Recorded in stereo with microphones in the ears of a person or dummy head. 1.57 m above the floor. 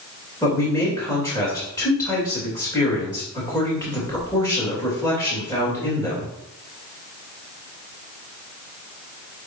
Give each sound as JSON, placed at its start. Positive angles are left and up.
{"t": 0.4, "sound": "a man speaking", "side_deg": 20, "distance_m": 3.0}